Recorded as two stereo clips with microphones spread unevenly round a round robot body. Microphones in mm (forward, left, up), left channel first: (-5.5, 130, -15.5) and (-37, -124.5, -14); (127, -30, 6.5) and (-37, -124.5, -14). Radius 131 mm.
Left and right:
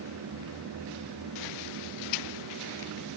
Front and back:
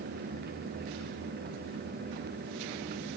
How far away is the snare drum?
No snare drum in this recording.